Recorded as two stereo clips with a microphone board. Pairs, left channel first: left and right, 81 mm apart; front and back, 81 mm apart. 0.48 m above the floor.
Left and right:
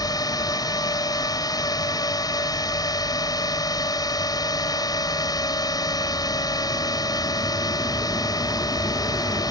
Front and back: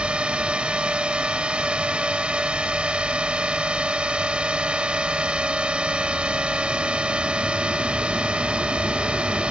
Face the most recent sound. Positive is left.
turn(degrees=105)